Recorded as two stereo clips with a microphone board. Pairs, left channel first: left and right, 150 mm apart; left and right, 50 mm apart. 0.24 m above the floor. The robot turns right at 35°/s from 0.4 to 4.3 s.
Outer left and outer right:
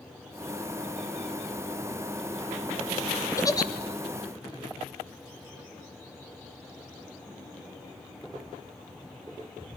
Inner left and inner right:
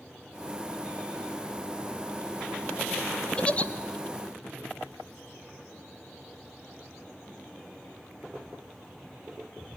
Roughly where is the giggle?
Left.